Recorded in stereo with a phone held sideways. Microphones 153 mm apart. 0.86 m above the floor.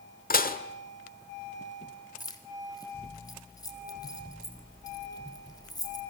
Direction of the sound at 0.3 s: 75° left (ahead or behind).